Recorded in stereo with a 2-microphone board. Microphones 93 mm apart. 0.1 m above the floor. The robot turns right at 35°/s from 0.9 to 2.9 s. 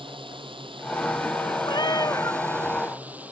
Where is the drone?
90° right; by 3.3 s 20° right.